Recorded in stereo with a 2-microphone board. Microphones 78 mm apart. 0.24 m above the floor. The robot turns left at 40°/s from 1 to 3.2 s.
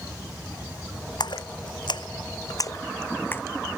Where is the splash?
70° left (ahead or behind); by 3.4 s 30° left (ahead or behind).